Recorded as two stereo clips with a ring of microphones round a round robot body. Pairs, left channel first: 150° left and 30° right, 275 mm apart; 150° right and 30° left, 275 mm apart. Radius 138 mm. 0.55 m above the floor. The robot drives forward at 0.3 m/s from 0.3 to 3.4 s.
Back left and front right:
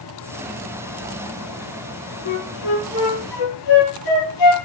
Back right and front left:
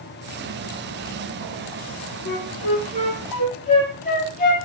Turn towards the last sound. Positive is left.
turn(degrees=145)